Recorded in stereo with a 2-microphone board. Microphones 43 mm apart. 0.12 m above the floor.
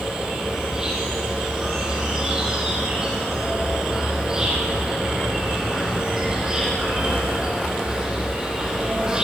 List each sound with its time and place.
0.0 s an insect: 20° right (ahead or behind), 3 m